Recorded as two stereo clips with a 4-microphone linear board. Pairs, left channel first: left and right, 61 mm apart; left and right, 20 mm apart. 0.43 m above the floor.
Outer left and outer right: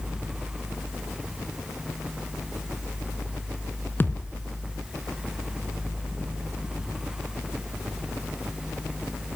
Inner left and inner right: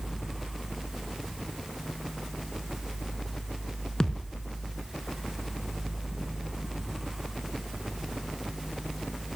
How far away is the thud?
About 2 m.